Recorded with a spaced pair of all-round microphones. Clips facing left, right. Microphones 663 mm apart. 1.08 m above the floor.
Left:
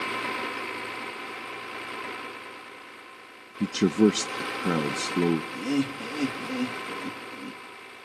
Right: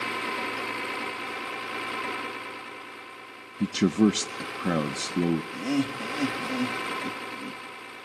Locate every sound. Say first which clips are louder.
3.6 s a man speaking: left 1 dB; 5° right (ahead or behind), 0.6 m
5.5 s laughter: even; 10° right (ahead or behind), 1.8 m